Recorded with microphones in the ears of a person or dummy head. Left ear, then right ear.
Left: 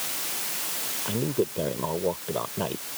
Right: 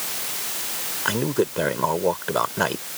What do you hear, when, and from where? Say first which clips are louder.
1.1 s a man speaking: right 6 dB; 60° right (ahead or behind)